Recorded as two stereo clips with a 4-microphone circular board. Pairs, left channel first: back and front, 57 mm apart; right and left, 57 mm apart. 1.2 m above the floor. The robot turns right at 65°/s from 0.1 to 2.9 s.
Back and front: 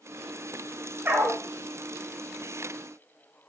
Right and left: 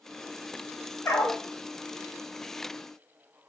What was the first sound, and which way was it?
A dog barking, 55° right.